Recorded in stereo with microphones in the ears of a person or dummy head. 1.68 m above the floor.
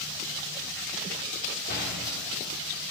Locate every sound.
1.7 s a door slam: 55° left (ahead or behind), 3 m